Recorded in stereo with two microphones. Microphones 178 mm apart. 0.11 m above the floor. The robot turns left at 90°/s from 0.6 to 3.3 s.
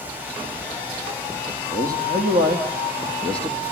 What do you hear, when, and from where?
1.7 s a man speaking: 45° right, 4 m; by 3.6 s 175° left, 4 m